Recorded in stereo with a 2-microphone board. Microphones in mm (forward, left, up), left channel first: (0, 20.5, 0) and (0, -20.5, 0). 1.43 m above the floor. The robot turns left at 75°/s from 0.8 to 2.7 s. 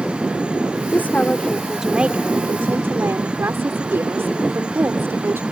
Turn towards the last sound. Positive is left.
turn(degrees=-75)